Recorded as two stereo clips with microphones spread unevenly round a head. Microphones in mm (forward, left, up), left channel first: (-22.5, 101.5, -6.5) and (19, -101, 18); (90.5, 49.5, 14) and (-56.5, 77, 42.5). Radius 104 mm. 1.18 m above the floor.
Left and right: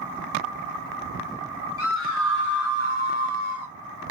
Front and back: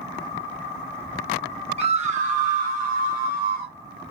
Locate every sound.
1.8 s a scream: 120° left, 1.6 m; by 3.7 s 150° left, 3.5 m